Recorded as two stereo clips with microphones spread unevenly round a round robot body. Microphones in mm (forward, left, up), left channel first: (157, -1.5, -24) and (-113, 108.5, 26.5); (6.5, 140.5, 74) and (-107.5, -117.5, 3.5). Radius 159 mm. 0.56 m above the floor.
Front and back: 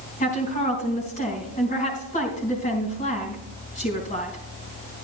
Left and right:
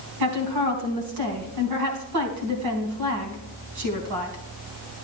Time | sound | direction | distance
0.2 | a woman speaking | 90° right | 3.5 m